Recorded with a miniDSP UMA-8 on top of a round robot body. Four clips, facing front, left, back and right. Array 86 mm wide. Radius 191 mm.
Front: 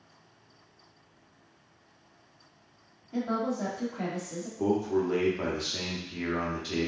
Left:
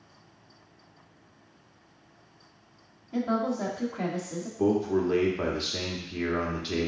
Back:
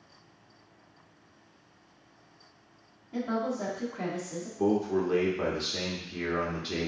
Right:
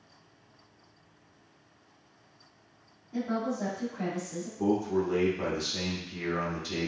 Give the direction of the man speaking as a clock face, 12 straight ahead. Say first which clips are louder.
Left 3 dB, even; 9 o'clock.